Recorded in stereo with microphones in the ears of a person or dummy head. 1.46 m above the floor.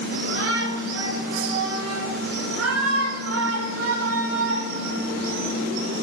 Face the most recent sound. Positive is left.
turn(degrees=-80)